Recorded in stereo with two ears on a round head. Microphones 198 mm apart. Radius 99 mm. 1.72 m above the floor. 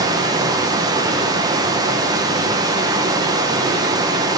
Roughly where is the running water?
Centre.